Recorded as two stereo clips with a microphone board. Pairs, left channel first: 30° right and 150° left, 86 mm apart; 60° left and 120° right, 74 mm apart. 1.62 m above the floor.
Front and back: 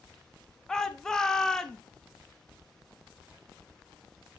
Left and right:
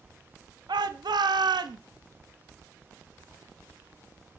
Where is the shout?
110° right, 0.5 m.